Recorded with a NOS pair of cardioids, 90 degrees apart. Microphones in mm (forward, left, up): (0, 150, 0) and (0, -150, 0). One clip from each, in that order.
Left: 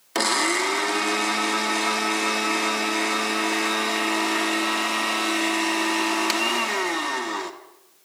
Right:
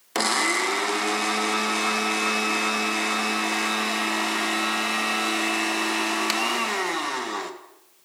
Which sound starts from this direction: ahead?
A blender, at 0.1 s.